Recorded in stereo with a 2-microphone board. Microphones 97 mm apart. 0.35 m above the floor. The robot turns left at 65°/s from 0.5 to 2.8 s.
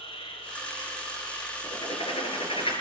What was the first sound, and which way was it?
An insect, 100° left.